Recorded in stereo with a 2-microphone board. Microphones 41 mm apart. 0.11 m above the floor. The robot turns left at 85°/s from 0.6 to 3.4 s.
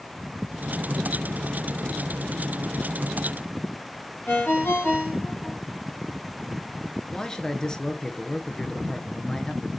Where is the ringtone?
55° left (ahead or behind), 4.5 m.